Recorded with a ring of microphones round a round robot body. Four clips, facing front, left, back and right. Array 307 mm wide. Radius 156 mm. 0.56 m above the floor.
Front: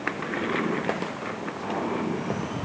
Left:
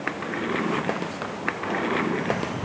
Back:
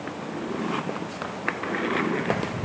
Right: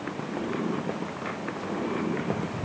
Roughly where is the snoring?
No snoring in this recording.